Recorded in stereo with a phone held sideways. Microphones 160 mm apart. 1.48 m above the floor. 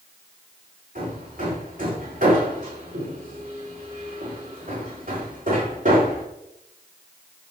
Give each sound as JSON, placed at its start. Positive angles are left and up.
{"t": 0.9, "sound": "hammering", "side_deg": -60, "distance_m": 4.5}